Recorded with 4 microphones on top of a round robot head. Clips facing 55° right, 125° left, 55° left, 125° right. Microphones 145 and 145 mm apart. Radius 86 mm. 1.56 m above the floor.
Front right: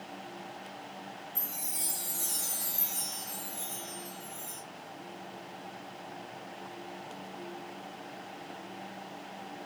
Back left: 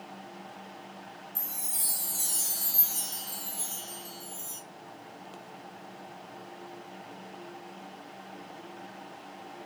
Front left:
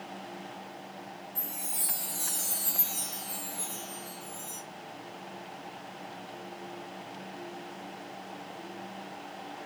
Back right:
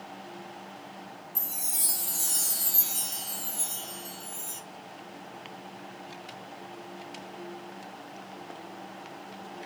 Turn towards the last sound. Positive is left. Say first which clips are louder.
# front right 1 dB, front left 1 dB
turn(degrees=-170)